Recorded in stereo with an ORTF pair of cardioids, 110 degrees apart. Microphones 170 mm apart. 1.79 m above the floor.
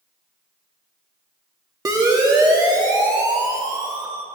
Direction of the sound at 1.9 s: 25° right.